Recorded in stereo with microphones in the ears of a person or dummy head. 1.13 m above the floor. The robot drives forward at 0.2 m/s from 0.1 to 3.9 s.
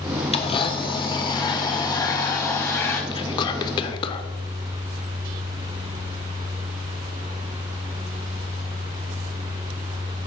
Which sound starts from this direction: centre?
Whispering, at 3.1 s.